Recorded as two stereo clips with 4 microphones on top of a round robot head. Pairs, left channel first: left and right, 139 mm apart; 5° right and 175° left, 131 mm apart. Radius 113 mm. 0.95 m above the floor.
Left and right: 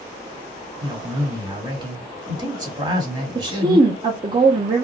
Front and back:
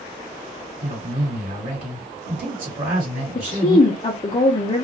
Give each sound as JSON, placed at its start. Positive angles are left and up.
{"t": 0.8, "sound": "a man speaking", "azimuth_deg": -150, "distance_m": 1.5}
{"t": 3.4, "sound": "a woman speaking", "azimuth_deg": -40, "distance_m": 0.5}